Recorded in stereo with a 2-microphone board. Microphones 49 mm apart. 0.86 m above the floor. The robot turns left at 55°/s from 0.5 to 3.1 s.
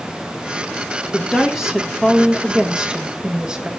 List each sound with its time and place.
1.1 s a woman speaking: centre (ahead or behind), 0.9 m; by 3.7 s 20° right (ahead or behind), 0.9 m